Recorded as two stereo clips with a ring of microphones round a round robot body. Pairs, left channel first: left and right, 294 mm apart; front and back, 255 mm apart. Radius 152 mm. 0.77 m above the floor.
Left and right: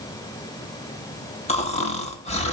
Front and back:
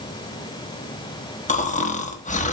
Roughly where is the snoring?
Ahead left.